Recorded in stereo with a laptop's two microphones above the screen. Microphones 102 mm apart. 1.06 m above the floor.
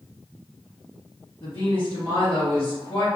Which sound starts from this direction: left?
A woman speaking, at 1.4 s.